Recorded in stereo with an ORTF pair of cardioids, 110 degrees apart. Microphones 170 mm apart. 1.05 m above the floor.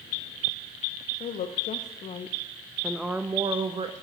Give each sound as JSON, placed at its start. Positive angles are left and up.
{"t": 1.2, "sound": "a woman speaking", "azimuth_deg": 65, "distance_m": 1.4}